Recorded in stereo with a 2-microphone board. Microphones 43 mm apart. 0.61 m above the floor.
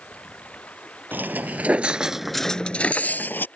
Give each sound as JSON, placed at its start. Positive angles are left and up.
{"t": 0.0, "sound": "running water", "side_deg": 30}
{"t": 1.1, "sound": "footsteps", "side_deg": -55}